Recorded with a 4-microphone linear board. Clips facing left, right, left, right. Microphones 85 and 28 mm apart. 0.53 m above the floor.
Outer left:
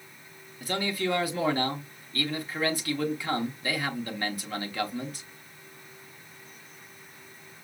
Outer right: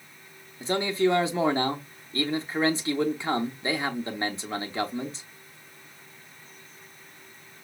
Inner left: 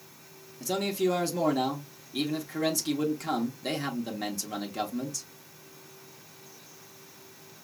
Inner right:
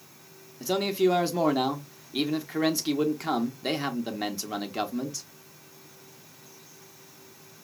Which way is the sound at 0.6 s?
25° right (ahead or behind).